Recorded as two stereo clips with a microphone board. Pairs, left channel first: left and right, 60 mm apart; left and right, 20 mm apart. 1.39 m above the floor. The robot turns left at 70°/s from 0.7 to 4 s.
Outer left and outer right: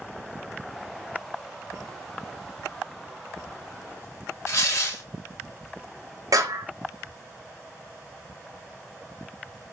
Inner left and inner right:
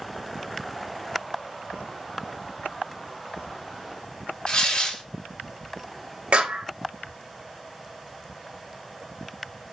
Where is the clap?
80° right, 0.8 m.